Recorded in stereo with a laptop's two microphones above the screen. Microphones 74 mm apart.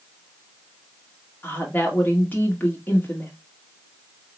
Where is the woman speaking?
25° left (ahead or behind), 1.8 m.